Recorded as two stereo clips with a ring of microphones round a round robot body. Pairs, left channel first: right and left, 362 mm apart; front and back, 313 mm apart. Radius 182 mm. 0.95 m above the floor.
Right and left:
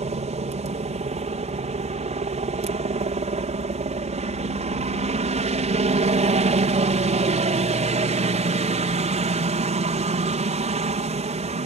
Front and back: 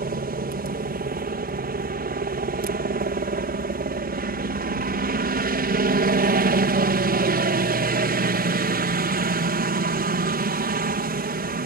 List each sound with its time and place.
0.0 s a helicopter: 150° left